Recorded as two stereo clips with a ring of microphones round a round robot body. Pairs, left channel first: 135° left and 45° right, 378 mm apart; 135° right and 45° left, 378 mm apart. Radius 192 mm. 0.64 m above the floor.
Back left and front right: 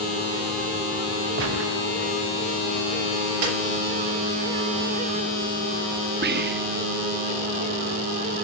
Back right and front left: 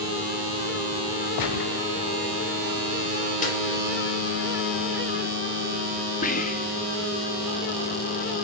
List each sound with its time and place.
1.4 s a gunshot: 100° right, 0.7 m
3.4 s a snare drum: 65° right, 3.5 m
6.2 s whispering: 85° right, 0.8 m